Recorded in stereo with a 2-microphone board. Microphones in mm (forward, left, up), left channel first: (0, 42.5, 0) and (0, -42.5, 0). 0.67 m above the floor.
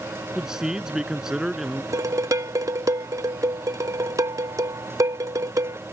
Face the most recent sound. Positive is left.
turn(degrees=-40)  # may be behind; listen again after turning